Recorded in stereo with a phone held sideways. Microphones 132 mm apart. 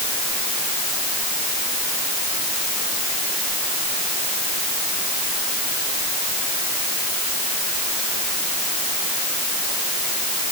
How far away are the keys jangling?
I don't hear keys jangling.